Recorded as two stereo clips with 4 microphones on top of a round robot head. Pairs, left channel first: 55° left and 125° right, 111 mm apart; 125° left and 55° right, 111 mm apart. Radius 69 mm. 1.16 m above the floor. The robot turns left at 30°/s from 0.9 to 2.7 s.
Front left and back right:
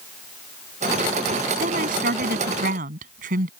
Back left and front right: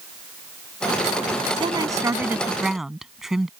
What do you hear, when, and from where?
1.6 s a woman speaking: 105° right; by 3.5 s 140° right